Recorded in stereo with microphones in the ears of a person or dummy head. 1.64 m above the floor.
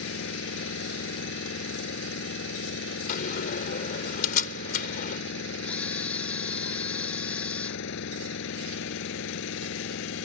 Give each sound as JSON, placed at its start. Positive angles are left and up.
{"t": 0.0, "sound": "an engine running", "side_deg": 70}
{"t": 3.1, "sound": "a door slam", "side_deg": 50}
{"t": 5.6, "sound": "a camera shutter", "side_deg": 5}